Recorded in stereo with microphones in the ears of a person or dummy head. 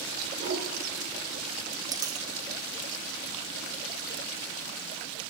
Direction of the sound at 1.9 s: 25° right (ahead or behind).